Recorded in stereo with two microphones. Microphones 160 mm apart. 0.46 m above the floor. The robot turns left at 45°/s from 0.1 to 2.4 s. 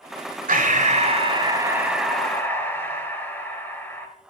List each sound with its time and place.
0.5 s breathing: 110° right, 1.4 m; by 4.1 s 165° left, 1.4 m